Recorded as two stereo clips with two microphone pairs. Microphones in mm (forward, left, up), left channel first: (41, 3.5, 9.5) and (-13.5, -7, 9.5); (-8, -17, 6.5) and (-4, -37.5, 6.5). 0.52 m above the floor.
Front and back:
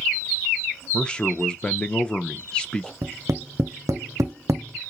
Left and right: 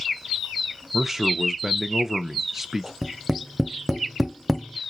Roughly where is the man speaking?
Ahead right.